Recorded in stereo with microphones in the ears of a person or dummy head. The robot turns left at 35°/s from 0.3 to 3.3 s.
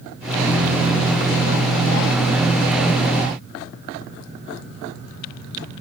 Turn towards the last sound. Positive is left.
No sound to turn to.